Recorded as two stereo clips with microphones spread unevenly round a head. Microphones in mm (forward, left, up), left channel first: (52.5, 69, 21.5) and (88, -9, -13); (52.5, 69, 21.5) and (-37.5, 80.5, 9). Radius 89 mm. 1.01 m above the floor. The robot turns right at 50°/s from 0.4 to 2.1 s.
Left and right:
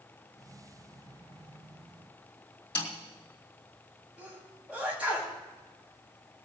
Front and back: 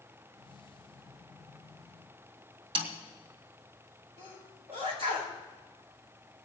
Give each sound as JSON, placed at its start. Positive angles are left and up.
{"t": 2.8, "sound": "a snare drum", "azimuth_deg": 150, "distance_m": 2.5}
{"t": 4.2, "sound": "a sneeze", "azimuth_deg": -150, "distance_m": 4.5}